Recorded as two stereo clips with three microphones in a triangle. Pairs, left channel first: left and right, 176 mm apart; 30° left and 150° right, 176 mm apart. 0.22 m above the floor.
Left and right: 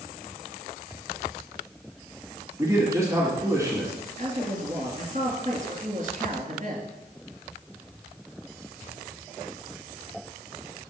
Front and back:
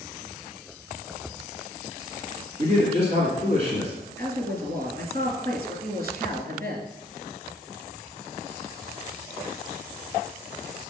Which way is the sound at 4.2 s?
130° right.